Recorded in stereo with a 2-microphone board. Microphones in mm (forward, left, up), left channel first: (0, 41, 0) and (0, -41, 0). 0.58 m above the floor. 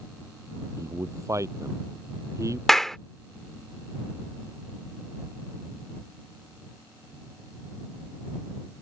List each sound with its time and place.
0.8 s a man speaking: 40° right (ahead or behind)
2.7 s a clap: 5° left (ahead or behind)